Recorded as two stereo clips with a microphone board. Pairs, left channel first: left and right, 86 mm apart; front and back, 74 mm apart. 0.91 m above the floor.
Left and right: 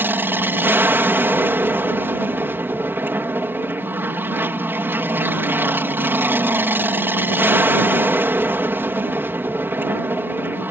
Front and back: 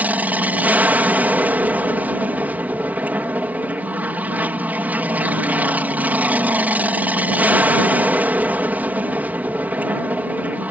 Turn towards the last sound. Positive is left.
turn(degrees=-135)